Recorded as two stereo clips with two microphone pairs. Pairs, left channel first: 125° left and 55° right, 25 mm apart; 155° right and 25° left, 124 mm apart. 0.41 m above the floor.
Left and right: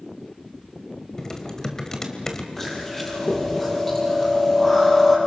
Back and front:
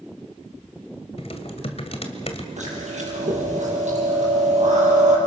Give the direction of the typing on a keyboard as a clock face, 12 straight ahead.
6 o'clock.